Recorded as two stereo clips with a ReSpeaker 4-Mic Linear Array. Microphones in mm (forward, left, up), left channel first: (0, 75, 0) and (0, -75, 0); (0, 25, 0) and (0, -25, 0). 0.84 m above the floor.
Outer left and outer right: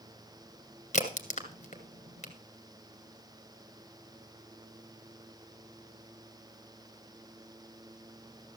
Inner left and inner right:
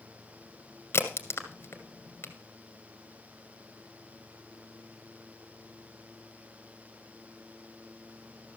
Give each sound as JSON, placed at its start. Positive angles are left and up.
{"t": 0.9, "sound": "a crack", "side_deg": 55, "distance_m": 1.8}